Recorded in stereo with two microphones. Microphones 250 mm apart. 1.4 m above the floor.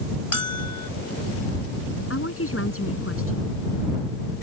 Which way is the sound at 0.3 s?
75° left (ahead or behind).